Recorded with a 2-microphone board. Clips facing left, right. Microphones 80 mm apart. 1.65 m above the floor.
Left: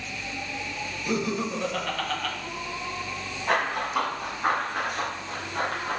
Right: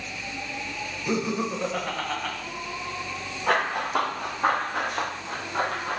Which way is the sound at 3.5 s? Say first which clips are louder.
Right 2 dB; 60° right (ahead or behind).